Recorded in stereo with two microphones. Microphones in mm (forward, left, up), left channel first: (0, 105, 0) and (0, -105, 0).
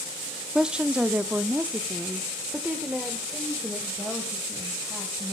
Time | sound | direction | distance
0.6 | a woman speaking | 5° right (ahead or behind) | 0.7 m